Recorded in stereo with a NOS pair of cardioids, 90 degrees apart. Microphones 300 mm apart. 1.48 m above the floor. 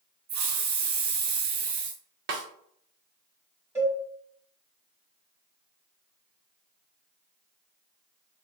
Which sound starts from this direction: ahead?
A cowbell, at 3.8 s.